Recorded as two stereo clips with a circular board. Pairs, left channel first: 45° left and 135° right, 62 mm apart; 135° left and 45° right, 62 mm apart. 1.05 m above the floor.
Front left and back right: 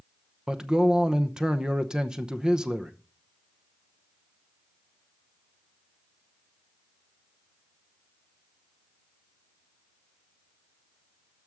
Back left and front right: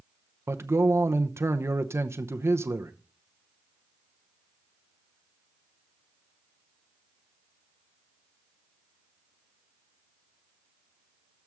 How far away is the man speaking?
About 0.8 m.